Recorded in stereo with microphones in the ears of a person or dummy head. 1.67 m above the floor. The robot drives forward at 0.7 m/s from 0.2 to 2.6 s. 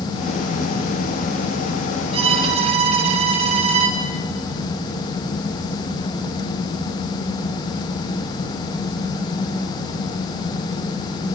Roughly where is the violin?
Right.